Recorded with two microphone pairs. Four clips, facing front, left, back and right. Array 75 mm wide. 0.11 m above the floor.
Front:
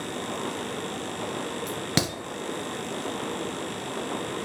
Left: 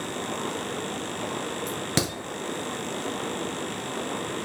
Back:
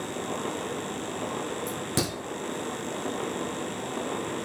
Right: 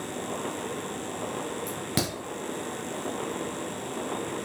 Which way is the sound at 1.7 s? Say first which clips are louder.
Left 2 dB, front 1 dB; 30° left.